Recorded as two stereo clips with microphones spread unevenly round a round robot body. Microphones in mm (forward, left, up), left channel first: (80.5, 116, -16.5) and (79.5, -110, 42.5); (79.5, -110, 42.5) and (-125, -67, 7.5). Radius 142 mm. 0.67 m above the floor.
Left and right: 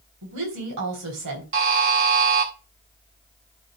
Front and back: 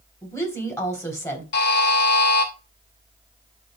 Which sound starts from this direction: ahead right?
A buzzer, at 1.5 s.